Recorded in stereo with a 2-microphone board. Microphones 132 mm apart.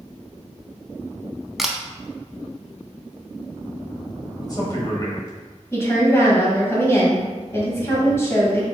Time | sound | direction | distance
1.6 | a camera shutter | centre (ahead or behind) | 0.6 m
4.4 | a man speaking | 30° left (ahead or behind) | 1.4 m
5.7 | a woman speaking | 20° left (ahead or behind) | 1.6 m